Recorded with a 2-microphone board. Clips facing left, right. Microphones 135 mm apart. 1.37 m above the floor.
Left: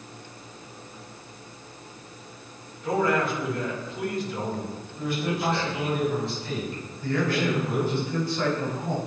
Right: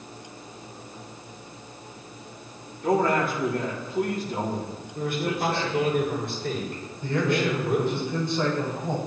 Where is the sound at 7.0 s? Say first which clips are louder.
Right 1 dB; 20° right (ahead or behind), 6.5 m.